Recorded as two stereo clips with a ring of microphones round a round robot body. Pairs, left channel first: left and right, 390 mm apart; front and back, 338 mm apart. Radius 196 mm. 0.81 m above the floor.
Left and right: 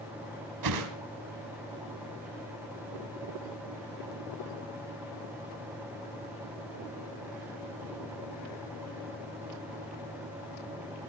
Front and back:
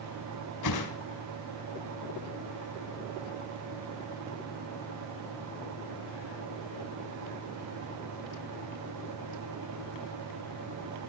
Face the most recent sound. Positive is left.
turn(degrees=-50)